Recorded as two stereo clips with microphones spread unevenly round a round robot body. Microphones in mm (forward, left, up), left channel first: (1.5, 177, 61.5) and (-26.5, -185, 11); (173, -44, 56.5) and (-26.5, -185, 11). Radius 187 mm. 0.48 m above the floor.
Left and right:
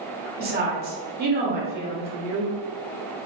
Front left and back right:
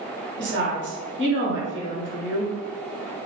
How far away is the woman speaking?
About 1.4 m.